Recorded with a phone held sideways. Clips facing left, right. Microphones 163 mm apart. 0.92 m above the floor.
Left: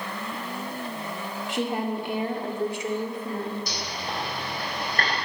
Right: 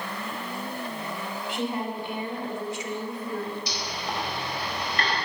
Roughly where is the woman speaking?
Left.